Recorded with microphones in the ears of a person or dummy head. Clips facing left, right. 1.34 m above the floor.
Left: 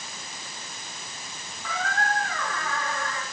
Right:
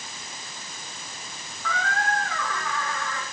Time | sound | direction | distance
1.6 | a squeak | 10° left (ahead or behind) | 6.5 m